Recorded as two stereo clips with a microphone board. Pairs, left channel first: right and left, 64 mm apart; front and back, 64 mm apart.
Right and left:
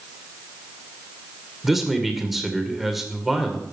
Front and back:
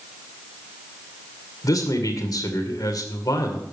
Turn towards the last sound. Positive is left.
turn(degrees=5)